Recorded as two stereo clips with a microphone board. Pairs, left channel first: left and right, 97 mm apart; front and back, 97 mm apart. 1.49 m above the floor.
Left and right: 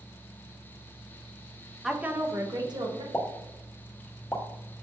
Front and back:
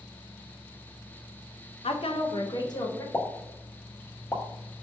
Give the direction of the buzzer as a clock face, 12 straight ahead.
I don't hear a buzzer.